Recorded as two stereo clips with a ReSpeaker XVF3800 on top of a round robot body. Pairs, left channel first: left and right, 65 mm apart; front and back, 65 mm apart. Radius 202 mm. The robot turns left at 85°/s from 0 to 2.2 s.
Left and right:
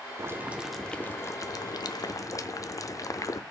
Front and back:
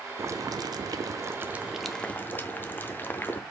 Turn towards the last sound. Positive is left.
turn(degrees=55)